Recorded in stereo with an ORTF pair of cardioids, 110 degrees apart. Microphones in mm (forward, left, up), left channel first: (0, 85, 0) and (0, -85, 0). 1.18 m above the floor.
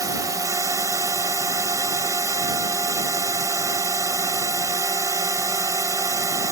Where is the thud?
I don't hear a thud.